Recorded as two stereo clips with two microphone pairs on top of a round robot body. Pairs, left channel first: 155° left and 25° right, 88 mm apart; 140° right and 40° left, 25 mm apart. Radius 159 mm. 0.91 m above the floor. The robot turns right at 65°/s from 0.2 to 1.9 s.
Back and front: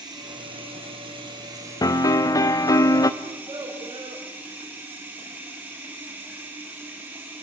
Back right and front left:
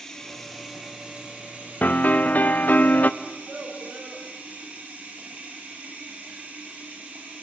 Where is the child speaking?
5° left, 2.5 m.